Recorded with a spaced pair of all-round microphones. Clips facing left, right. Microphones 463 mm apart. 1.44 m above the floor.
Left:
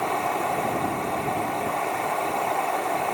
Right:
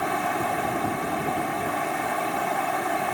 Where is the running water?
35° right (ahead or behind).